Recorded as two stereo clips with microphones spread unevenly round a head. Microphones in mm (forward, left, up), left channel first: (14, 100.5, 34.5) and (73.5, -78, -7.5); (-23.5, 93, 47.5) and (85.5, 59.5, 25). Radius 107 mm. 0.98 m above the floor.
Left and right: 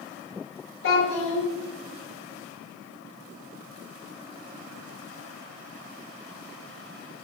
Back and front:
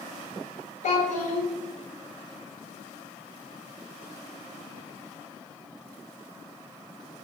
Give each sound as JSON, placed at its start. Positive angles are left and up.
{"t": 0.8, "sound": "a child speaking", "azimuth_deg": 145, "distance_m": 0.8}